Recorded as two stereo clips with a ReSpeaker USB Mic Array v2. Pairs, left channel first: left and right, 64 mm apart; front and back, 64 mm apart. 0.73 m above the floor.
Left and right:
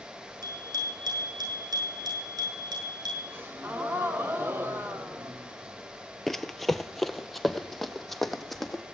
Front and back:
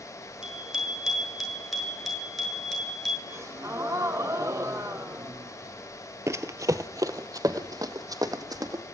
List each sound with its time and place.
0.4 s a bicycle bell: 100° right, 7 m; by 3.2 s 85° right, 8 m
3.3 s a gasp: 140° right, 2 m
6.3 s running footsteps: 175° left, 1.0 m; by 8.8 s straight behind, 2.5 m